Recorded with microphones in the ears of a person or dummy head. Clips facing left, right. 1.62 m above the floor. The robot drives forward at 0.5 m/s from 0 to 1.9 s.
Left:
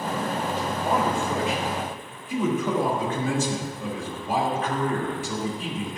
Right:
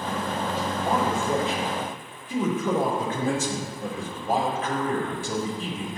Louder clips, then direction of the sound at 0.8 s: Even; 45° right (ahead or behind).